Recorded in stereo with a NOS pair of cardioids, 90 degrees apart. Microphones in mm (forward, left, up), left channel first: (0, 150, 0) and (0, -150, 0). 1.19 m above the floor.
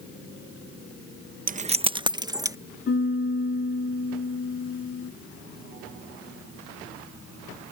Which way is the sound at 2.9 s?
45° left.